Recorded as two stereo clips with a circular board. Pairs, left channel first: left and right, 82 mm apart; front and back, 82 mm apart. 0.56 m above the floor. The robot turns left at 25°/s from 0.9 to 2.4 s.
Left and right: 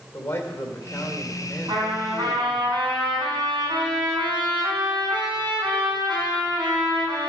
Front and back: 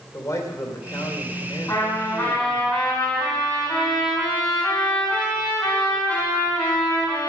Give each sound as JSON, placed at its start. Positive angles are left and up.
{"t": 0.1, "sound": "a man speaking", "azimuth_deg": 35, "distance_m": 2.0}
{"t": 1.7, "sound": "a trumpet", "azimuth_deg": -60, "distance_m": 4.0}